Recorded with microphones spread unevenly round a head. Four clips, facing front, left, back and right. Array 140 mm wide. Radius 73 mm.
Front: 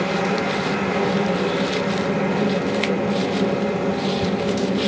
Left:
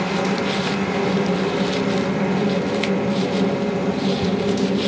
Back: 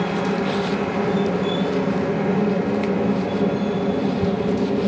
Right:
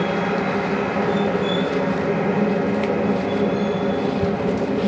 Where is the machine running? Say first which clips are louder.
Even, even; 45° right, 4.5 m.